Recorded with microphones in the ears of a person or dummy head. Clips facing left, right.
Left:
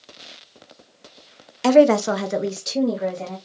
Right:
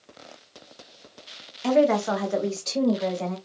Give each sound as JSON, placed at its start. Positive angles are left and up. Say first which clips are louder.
{"t": 1.6, "sound": "a woman speaking", "louder": "left 6 dB", "side_deg": 70, "distance_m": 0.6}